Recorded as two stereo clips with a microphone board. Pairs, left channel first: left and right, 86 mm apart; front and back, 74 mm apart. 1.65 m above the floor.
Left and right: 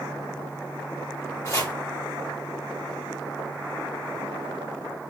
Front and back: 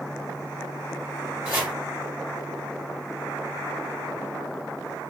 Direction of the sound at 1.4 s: 125° left.